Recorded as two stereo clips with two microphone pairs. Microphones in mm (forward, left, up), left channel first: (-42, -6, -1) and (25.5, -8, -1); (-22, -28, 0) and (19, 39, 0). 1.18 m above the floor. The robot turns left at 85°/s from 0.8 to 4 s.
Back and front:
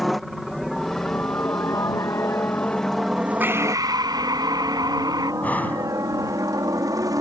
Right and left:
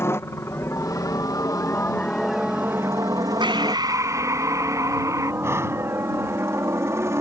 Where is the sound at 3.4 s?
65° left; by 5.3 s 10° left.